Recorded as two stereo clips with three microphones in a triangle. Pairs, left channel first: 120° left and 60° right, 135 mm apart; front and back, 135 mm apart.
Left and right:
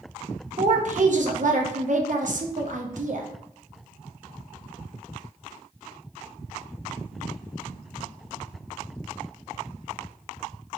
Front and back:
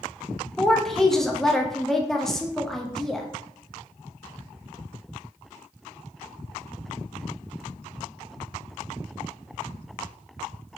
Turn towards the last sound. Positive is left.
turn(degrees=-90)